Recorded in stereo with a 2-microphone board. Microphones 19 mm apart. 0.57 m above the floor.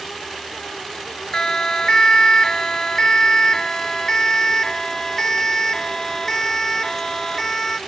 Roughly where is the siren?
Left.